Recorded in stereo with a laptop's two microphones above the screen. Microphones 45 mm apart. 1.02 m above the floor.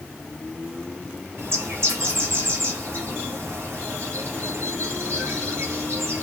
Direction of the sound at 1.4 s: 75° right (ahead or behind).